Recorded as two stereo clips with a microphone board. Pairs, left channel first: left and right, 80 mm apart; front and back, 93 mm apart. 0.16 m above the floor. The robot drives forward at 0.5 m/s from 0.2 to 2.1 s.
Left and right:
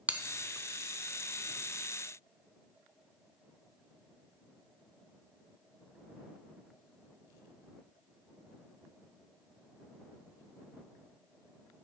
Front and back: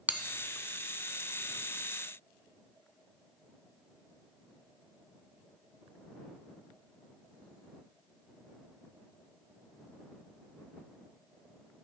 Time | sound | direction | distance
0.1 | a bell | 135° right | 0.6 m